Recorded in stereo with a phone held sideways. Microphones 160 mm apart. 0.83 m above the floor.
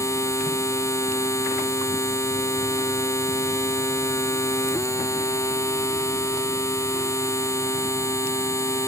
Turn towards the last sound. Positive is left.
turn(degrees=20)  # may be behind; listen again after turning